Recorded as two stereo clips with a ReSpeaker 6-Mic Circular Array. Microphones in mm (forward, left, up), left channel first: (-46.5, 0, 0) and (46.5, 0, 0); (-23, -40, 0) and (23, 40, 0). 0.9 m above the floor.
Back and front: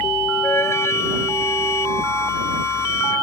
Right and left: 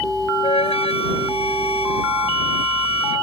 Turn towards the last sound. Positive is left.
turn(degrees=-120)